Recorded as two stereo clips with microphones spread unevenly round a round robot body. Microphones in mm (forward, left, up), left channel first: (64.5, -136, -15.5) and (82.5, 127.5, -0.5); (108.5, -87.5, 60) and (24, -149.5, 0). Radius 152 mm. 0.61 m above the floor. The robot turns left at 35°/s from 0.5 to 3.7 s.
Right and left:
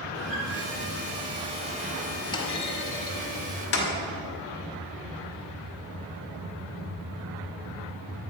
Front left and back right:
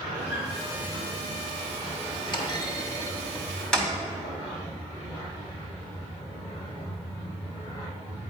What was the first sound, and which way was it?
A guitar, straight behind.